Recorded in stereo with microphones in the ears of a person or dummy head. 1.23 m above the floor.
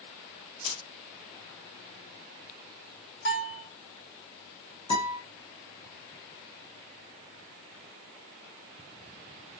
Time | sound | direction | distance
0.6 | keys jangling | 75° left (ahead or behind) | 3 m
3.2 | a bell | 70° left (ahead or behind) | 3.5 m
4.9 | a guitar | 25° left (ahead or behind) | 1.6 m